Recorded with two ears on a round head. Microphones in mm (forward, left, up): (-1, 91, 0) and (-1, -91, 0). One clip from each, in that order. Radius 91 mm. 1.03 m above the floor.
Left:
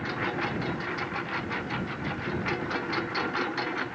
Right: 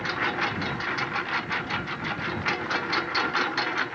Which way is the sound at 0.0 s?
40° right (ahead or behind).